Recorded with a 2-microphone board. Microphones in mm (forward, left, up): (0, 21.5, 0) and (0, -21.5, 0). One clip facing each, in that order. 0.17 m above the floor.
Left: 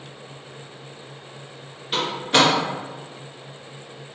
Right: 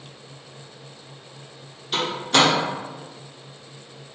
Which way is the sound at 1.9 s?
15° left (ahead or behind).